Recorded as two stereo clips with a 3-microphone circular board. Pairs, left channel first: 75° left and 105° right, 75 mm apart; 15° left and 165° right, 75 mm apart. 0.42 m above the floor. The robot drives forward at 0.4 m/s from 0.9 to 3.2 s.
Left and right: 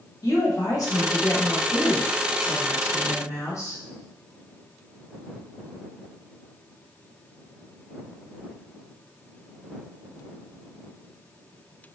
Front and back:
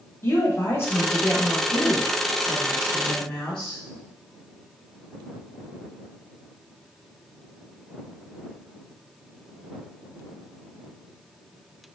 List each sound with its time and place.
0.2 s a woman speaking: 65° left, 2 m; by 3.8 s 95° left, 1.9 m